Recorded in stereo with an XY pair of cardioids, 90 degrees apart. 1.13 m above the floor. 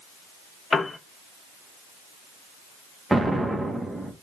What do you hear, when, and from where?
0.7 s a piano: 35° left, 0.7 m
3.1 s an explosion: 20° right, 1.1 m